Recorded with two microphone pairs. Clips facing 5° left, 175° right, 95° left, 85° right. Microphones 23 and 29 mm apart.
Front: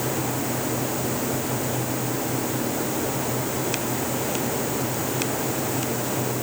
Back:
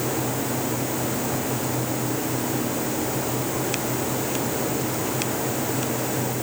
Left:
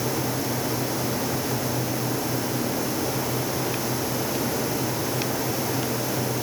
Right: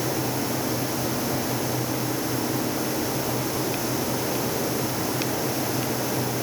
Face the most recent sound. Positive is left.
No sound to turn to.